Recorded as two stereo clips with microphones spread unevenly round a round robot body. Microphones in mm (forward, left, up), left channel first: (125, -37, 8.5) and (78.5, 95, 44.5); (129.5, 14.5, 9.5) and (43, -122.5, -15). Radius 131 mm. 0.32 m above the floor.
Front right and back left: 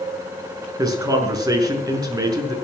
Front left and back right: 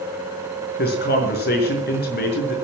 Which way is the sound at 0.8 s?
45° left.